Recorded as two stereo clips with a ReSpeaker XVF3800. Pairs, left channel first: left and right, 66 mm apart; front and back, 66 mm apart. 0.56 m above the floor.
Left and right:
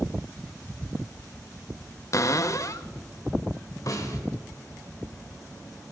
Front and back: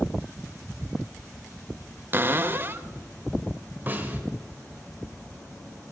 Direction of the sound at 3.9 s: 120° left.